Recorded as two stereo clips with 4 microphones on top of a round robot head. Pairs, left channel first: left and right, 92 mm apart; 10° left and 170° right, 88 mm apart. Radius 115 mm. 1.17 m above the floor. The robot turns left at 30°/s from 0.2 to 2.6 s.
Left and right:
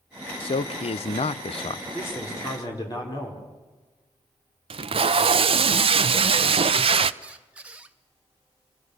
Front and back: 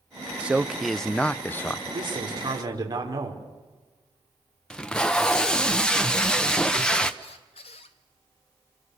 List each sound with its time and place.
0.4 s a man speaking: 110° left, 0.7 m; by 1.8 s 70° left, 0.7 m
1.9 s a man speaking: 160° left, 5 m; by 3.4 s 140° left, 5 m
4.7 s tape being pulled: 75° right, 0.8 m
7.2 s a squeak: 15° right, 0.6 m